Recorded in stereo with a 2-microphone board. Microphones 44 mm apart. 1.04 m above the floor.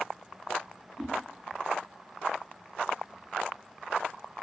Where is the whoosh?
15° right (ahead or behind), 0.6 m.